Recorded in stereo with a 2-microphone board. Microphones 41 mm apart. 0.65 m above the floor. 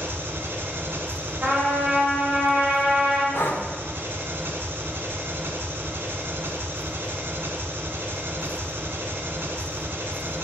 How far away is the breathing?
About 0.8 m.